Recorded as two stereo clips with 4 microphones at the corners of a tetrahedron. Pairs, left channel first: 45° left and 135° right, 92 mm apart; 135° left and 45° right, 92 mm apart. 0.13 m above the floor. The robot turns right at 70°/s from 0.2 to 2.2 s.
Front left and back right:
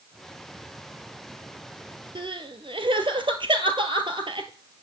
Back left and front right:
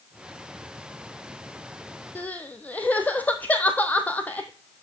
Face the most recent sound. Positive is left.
turn(degrees=-155)